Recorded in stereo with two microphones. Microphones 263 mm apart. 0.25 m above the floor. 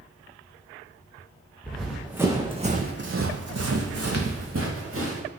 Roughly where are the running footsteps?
Centre.